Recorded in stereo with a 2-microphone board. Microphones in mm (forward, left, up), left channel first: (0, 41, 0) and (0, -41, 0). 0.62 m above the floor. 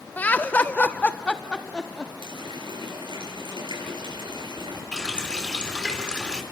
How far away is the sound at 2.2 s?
About 7 m.